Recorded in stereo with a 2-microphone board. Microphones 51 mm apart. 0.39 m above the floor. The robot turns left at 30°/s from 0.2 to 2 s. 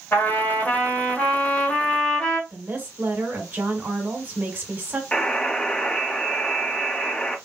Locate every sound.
0.1 s a trumpet: 70° left, 2 m; by 2.4 s 15° left, 2 m
2.5 s a woman speaking: 45° right (ahead or behind), 1.7 m
5.1 s a buzzer: 20° left (ahead or behind), 1.3 m